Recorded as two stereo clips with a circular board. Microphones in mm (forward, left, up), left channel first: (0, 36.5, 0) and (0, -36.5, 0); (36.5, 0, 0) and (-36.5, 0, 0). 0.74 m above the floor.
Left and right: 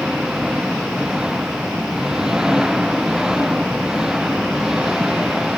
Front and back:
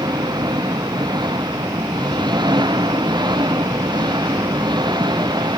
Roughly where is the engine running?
Behind.